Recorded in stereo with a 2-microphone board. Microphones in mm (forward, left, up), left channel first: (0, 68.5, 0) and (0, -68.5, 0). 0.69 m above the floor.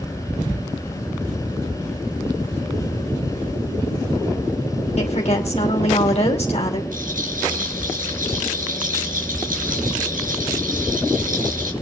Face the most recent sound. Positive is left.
turn(degrees=-75)  # may be behind; listen again after turning